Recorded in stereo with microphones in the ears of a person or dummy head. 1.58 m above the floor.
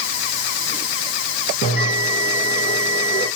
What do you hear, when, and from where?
1.6 s a bell: 50° left (ahead or behind), 5.5 m